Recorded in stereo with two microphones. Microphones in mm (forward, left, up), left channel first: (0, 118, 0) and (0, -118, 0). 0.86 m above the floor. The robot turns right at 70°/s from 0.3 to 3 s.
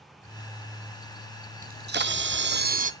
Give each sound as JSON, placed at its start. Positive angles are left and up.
{"t": 1.6, "sound": "a camera shutter", "azimuth_deg": -135, "distance_m": 0.5}